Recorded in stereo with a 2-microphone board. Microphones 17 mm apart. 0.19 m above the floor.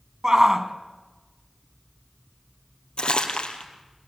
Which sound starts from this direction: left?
Crumpling, at 3.0 s.